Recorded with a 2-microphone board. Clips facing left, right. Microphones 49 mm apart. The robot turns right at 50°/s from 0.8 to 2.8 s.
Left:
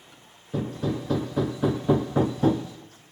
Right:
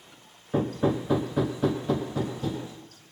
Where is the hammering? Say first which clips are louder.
Right 3 dB; 30° right, 3 m; by 2.7 s 60° left, 3 m.